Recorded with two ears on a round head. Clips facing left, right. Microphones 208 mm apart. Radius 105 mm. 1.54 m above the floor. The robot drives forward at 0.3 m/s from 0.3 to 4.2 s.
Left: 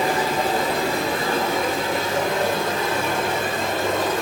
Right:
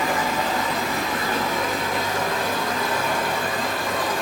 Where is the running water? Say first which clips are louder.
Left 3 dB; 35° left (ahead or behind), 3.5 m; by 4.2 s 25° left (ahead or behind), 4.5 m.